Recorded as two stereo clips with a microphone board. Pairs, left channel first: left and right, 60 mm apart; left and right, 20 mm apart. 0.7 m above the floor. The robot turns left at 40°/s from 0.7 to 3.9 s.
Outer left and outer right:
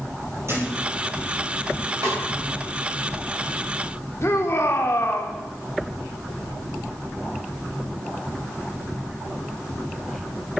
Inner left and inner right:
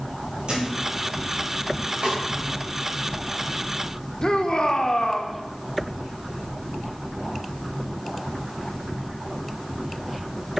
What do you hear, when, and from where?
0.5 s a thud: 50° right (ahead or behind), 7.5 m
2.0 s a snare drum: 70° right (ahead or behind), 4.5 m; by 2.2 s 75° right (ahead or behind), 4.5 m
4.2 s a shout: 45° left (ahead or behind), 1.7 m